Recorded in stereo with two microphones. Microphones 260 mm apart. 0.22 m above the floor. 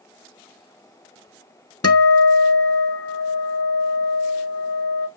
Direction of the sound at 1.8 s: 70° left (ahead or behind).